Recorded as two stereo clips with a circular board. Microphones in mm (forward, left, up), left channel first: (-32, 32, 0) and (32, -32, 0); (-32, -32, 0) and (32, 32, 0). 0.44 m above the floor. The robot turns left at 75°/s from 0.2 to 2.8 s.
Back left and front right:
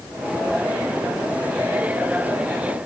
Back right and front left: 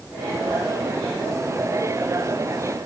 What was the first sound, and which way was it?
Only background noise.